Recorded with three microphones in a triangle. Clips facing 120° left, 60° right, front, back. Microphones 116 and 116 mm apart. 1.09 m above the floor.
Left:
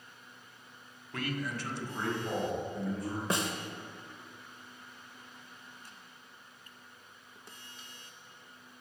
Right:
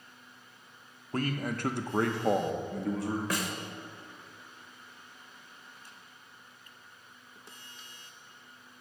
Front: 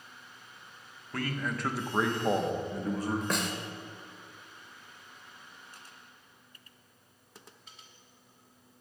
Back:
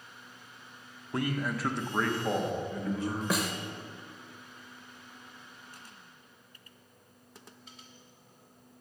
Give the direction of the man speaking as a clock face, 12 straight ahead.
4 o'clock.